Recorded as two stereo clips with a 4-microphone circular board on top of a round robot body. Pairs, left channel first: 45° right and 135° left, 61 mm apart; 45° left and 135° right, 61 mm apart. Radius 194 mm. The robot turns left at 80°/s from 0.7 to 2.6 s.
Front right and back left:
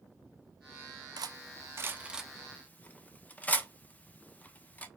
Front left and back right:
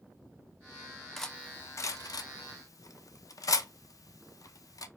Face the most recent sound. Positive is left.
turn(degrees=20)